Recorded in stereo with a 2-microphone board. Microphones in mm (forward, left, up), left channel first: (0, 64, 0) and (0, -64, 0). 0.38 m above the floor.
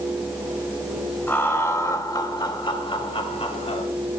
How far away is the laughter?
About 2 m.